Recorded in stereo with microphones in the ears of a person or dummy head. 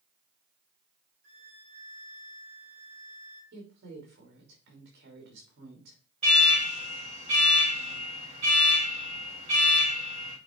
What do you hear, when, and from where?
1.2 s a violin: 20° left (ahead or behind), 3 m
3.5 s a woman speaking: 65° right (ahead or behind), 3 m
6.2 s an alarm: 30° right (ahead or behind), 4.5 m